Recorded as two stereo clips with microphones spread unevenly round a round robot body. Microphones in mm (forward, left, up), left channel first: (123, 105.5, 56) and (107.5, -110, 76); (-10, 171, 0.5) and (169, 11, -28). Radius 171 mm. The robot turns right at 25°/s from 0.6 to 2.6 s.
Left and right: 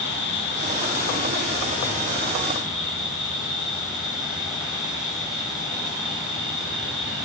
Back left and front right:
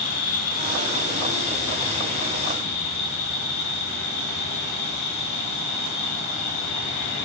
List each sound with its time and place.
0.0 s an insect: 130° left, 1.2 m; by 7.3 s straight behind, 1.2 m